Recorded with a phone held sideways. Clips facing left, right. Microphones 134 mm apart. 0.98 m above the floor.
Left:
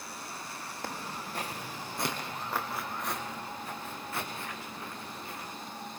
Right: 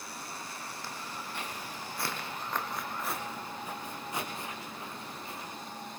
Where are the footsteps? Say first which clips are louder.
Left 6 dB; 50° left (ahead or behind), 3 m; by 5.5 s 25° right (ahead or behind), 6 m.